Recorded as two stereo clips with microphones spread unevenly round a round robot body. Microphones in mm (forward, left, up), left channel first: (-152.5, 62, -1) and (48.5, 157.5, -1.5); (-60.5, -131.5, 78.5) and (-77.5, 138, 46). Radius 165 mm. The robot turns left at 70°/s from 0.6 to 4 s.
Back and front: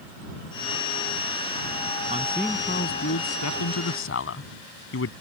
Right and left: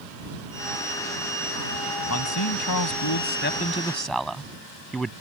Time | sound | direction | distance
2.1 | a man speaking | 40° right | ?